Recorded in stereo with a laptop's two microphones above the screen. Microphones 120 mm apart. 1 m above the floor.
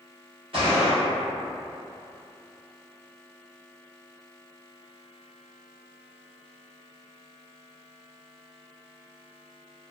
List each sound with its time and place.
0.5 s a gunshot: 50° right (ahead or behind), 1.1 m